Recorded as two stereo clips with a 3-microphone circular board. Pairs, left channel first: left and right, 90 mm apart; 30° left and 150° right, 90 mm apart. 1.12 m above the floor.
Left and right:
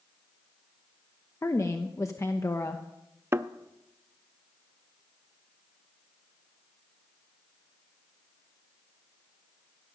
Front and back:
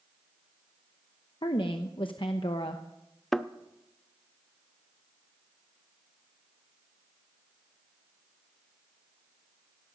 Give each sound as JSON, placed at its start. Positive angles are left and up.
{"t": 1.4, "sound": "a woman speaking", "azimuth_deg": 40, "distance_m": 0.9}
{"t": 3.3, "sound": "a thud", "azimuth_deg": -55, "distance_m": 0.5}